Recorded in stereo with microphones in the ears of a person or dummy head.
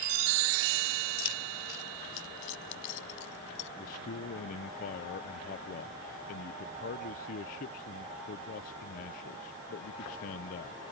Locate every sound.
1.2 s keys jangling: 70° left (ahead or behind); by 3.7 s 65° left (ahead or behind)
3.8 s a man speaking: 40° left (ahead or behind)